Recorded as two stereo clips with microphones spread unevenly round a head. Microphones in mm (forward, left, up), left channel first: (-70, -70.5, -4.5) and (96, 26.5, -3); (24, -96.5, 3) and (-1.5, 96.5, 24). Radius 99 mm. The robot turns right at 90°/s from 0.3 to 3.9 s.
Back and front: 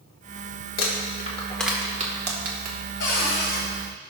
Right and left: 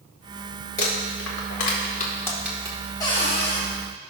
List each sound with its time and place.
0.8 s crumpling: 135° right, 1.9 m; by 2.8 s 40° left, 1.9 m
3.0 s a cupboard door: 160° right, 2.5 m; by 3.6 s 100° right, 2.5 m